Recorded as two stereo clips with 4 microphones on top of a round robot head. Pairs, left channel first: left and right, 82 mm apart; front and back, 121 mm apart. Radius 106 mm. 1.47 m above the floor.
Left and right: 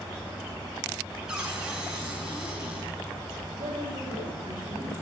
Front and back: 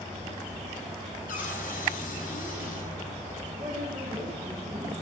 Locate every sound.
1.3 s a cupboard door: 5° right, 6.5 m
3.5 s a woman speaking: 110° right, 9.5 m